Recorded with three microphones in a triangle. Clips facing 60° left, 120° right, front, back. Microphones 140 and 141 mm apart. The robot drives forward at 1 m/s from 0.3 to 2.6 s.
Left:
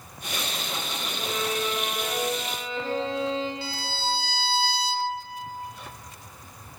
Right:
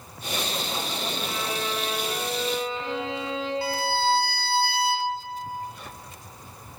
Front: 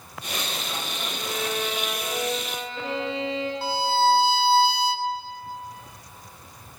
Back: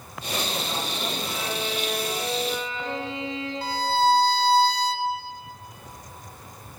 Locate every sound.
1.2 s a violin: 5° left, 4 m
3.6 s a violin: 85° right, 0.6 m